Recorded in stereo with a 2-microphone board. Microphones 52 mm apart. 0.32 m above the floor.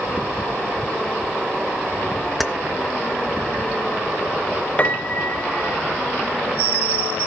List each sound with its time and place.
2.4 s keys jangling: centre (ahead or behind), 0.6 m
4.8 s a piano: 25° left (ahead or behind), 1.0 m